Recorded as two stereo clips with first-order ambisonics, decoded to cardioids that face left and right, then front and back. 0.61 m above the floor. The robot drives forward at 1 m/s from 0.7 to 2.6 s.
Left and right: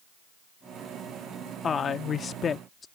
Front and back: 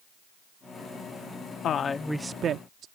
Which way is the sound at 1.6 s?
30° left.